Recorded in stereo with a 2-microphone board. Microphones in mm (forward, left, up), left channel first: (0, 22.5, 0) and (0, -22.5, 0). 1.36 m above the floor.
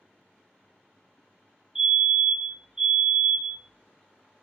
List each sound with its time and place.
1.8 s a fire alarm: 20° right (ahead or behind), 0.8 m